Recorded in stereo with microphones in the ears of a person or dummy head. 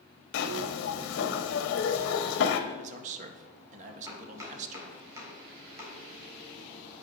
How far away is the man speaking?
About 1.6 m.